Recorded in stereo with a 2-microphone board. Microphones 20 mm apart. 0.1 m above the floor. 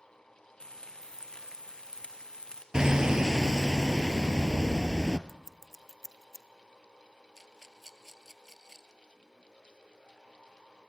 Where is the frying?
55° left (ahead or behind), 2 m.